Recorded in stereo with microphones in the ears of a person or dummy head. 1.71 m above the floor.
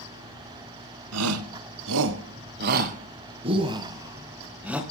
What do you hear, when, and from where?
1.1 s a shout: 85° right, 1.8 m; by 4.8 s 5° right (ahead or behind), 2.0 m